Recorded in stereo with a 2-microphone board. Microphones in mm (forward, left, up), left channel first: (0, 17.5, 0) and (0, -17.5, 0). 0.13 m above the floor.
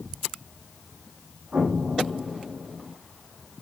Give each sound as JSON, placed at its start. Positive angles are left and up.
{"t": 1.5, "sound": "an explosion", "side_deg": -50, "distance_m": 9.0}